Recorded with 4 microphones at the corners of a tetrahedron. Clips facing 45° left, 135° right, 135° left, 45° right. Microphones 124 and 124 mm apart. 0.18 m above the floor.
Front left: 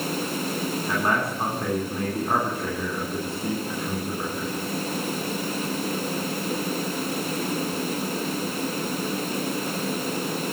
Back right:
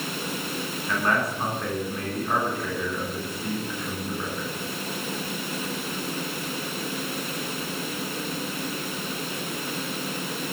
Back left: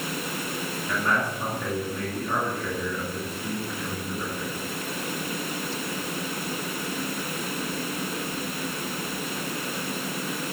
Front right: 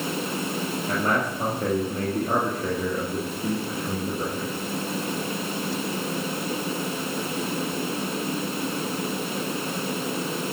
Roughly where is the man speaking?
Ahead.